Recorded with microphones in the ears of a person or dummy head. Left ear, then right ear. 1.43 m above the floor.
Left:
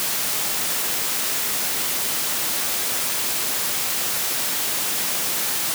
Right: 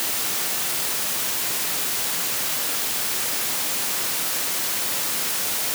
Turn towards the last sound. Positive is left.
No sound to turn to.